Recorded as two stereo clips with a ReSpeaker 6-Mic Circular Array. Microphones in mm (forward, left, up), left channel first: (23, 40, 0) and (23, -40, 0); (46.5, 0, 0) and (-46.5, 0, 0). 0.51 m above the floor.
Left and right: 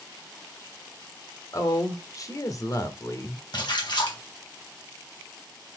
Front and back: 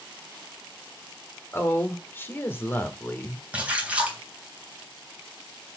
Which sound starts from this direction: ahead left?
A woman speaking, at 1.5 s.